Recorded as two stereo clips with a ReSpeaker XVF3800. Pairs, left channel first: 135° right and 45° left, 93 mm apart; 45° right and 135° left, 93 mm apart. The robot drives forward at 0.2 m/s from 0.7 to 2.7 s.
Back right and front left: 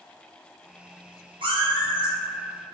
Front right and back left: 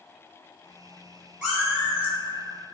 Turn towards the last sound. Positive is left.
turn(degrees=70)